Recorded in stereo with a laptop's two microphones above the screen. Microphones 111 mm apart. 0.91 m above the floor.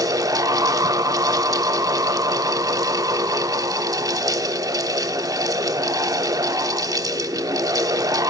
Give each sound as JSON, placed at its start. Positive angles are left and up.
{"t": 0.0, "sound": "a fan", "side_deg": -35, "distance_m": 1.3}